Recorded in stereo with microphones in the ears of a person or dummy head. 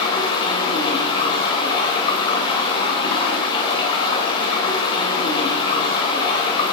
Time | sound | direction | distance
0.0 | running water | 25° left (ahead or behind) | 0.7 m